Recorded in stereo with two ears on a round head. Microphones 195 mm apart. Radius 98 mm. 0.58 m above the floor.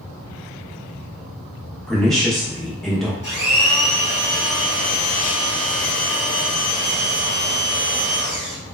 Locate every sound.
1.9 s a woman speaking: centre (ahead or behind), 0.7 m
3.2 s a blender: 35° left (ahead or behind), 1.5 m